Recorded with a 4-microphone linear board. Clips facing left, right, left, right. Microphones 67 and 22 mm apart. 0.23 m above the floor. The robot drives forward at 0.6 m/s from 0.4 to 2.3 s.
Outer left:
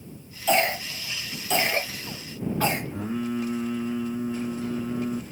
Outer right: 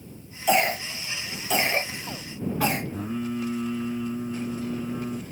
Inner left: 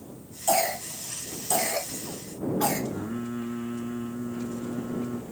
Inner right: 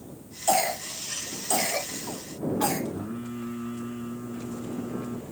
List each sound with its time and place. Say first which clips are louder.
0.5 s a cough: outer right 1 dB, even; 5° right (ahead or behind), 1.1 m
2.9 s singing: outer left 1 dB, inner left 2 dB; 65° left (ahead or behind), 4.5 m